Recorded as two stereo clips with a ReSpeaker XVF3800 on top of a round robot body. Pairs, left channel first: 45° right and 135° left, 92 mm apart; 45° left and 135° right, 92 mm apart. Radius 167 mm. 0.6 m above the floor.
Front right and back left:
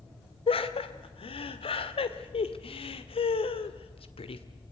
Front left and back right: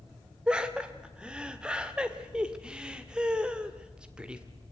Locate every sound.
0.5 s laughter: 55° right, 1.9 m